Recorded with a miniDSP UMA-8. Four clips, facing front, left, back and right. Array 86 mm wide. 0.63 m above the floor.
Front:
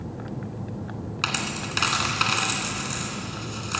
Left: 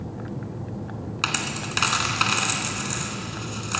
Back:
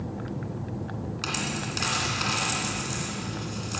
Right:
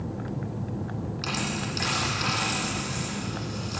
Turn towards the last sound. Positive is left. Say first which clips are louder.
# left 3 dB, front 3 dB
turn(degrees=55)